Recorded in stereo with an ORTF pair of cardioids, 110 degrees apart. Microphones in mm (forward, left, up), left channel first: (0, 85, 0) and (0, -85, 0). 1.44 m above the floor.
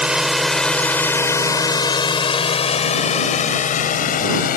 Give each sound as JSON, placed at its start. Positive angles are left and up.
{"t": 0.0, "sound": "a drone", "azimuth_deg": -5}